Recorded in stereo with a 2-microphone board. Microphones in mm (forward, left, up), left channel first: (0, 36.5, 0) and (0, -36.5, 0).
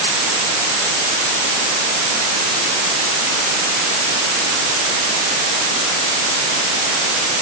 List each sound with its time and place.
Only background noise.